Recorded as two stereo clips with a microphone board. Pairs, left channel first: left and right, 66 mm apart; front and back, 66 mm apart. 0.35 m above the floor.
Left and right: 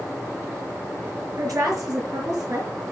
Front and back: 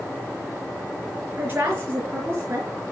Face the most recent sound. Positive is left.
turn(degrees=-125)